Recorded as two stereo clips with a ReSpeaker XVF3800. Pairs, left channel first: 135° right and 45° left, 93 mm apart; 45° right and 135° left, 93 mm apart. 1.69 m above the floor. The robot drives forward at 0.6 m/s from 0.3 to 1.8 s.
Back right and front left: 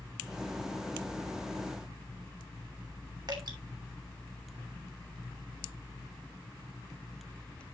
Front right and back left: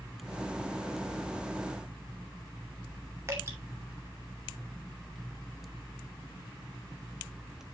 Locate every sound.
3.3 s dripping: 80° left, 2.5 m